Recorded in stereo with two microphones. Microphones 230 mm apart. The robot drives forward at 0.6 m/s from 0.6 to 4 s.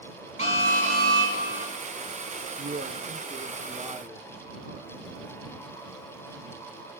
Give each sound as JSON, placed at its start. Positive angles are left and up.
{"t": 0.4, "sound": "an alarm", "side_deg": -65, "distance_m": 3.0}
{"t": 2.6, "sound": "a man speaking", "side_deg": -45, "distance_m": 0.5}